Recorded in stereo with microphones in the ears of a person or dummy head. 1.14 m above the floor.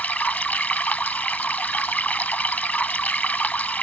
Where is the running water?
5° left (ahead or behind).